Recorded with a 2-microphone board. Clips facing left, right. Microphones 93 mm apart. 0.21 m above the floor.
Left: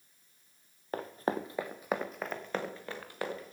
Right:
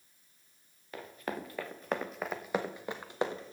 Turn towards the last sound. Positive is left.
turn(degrees=-25)  # may be behind; listen again after turning